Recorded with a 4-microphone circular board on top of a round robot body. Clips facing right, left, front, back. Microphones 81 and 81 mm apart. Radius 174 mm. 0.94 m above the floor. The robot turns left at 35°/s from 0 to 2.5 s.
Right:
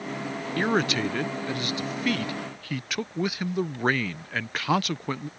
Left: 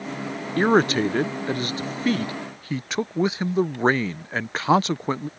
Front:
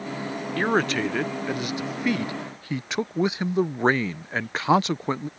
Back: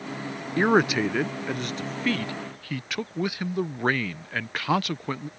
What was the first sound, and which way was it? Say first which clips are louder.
A man speaking: left 7 dB, back 3 dB; 115° left.